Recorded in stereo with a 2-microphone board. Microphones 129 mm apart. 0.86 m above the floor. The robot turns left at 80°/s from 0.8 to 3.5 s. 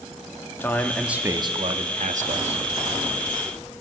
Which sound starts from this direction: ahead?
A man speaking, at 0.6 s.